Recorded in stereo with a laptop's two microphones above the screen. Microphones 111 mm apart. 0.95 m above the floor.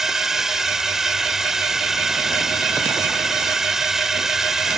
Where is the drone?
5° right (ahead or behind).